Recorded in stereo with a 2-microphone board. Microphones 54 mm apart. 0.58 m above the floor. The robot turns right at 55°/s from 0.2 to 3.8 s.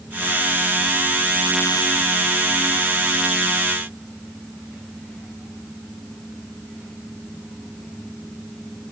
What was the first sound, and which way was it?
Only background noise.